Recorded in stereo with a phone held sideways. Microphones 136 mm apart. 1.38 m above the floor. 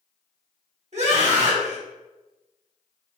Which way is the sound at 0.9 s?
55° right (ahead or behind).